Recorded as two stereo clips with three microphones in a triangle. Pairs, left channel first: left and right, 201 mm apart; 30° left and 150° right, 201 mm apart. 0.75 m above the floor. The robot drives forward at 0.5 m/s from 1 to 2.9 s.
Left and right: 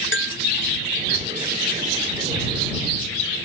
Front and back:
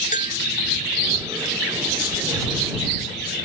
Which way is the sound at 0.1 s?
80° left.